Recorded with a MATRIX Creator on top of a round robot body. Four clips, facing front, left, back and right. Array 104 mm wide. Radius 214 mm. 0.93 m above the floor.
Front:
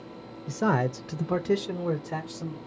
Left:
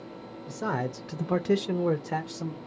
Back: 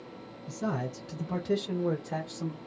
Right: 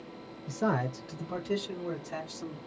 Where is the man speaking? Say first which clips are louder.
Right 1 dB, front 8 dB; 10° right, 0.7 m; by 2.6 s 100° left, 1.1 m.